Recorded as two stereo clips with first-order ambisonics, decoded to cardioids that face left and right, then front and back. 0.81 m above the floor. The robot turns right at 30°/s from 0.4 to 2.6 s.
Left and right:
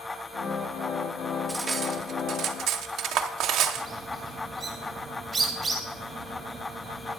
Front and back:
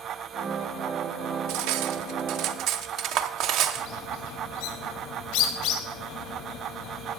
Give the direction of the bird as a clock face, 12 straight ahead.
12 o'clock.